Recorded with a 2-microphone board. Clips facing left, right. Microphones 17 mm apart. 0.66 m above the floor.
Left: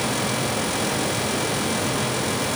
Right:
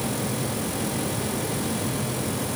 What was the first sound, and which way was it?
Only background noise.